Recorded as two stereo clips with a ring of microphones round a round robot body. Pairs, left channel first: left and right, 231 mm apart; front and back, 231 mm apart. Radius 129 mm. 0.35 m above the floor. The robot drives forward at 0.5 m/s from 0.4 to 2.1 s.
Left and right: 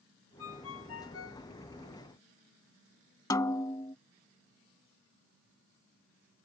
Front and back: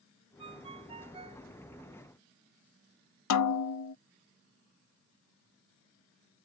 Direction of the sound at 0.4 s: 110° left.